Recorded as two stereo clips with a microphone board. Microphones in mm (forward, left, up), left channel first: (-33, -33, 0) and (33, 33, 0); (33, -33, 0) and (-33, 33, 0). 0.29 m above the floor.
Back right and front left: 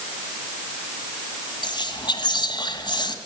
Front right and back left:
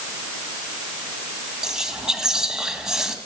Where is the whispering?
145° right, 2 m.